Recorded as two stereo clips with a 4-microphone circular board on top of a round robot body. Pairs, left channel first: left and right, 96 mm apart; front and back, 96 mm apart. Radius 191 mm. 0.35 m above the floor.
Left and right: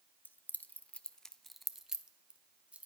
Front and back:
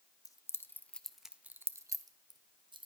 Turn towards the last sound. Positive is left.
turn(degrees=-165)